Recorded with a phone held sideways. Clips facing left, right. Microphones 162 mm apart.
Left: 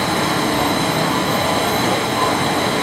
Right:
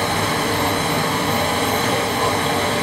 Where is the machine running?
75° left (ahead or behind), 0.8 m.